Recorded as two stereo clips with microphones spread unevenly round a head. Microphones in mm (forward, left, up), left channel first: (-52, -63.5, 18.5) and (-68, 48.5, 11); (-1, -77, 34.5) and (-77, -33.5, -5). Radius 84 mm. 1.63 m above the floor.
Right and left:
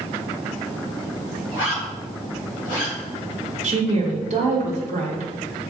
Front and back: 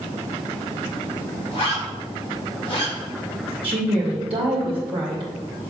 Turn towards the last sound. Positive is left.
turn(degrees=115)